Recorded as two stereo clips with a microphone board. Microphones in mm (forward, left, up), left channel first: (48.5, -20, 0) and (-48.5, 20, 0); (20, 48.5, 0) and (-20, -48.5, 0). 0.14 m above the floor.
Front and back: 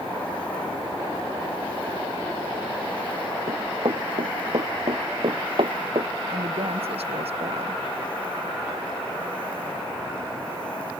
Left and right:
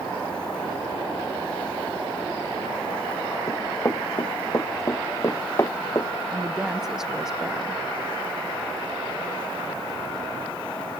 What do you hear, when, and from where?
3.5 s running footsteps: 130° left
6.3 s a woman speaking: 165° left